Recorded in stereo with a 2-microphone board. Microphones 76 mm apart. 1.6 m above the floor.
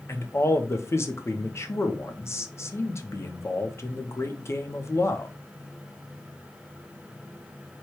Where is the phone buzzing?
No phone buzzing in this recording.